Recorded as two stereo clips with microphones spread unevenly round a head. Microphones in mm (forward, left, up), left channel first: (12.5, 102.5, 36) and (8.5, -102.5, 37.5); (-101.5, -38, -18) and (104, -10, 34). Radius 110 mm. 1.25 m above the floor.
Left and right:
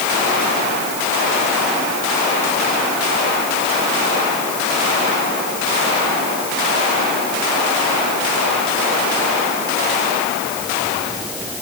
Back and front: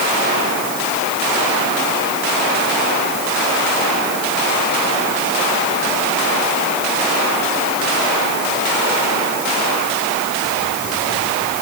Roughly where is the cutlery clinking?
No cutlery clinking in this recording.